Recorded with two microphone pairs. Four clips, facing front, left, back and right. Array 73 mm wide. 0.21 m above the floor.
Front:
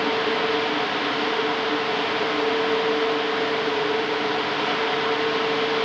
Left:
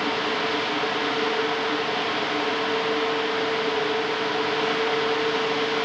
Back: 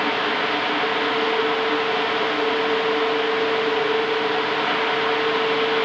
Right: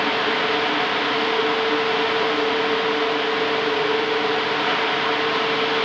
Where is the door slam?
No door slam in this recording.